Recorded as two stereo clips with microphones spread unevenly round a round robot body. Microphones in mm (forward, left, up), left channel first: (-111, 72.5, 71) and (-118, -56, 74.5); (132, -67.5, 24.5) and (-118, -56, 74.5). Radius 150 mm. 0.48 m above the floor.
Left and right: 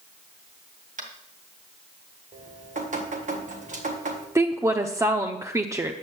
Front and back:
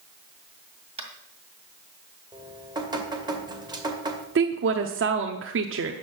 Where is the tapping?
110° right, 2 m.